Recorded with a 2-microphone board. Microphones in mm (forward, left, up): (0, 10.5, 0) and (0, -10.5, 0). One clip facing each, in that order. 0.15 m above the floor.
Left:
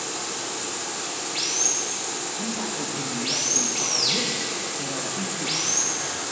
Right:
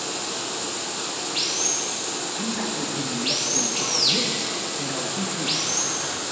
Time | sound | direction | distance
0.0 | running water | 15° right (ahead or behind) | 1.0 m
2.4 | a man speaking | 45° right (ahead or behind) | 2.5 m